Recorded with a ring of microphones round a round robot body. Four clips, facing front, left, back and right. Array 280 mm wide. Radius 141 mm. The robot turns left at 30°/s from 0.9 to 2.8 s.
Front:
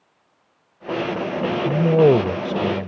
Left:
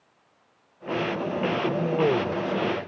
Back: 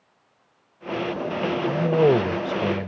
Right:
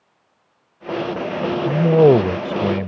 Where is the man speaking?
55° right; by 2.9 s 90° right.